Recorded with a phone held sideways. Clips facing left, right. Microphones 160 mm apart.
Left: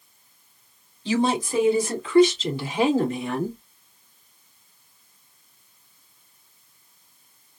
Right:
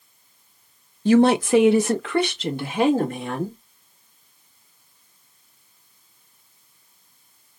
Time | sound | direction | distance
1.1 | a woman speaking | 50° right (ahead or behind) | 0.6 m